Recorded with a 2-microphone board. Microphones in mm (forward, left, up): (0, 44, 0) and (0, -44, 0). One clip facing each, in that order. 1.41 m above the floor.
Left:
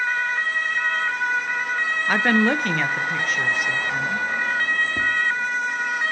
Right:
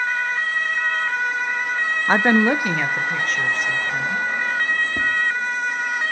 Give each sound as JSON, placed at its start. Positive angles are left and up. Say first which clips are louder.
{"t": 2.1, "sound": "a woman speaking", "louder": "right 3 dB", "side_deg": -30, "distance_m": 0.6}
{"t": 5.0, "sound": "tapping", "louder": "right 1 dB", "side_deg": -10, "distance_m": 1.9}